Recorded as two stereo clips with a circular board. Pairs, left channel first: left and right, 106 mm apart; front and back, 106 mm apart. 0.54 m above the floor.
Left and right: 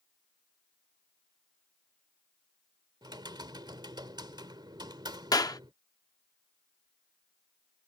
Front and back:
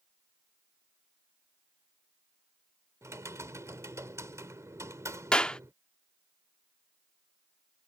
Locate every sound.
3.0 s typing on a keyboard: 125° right
5.3 s a clap: 75° left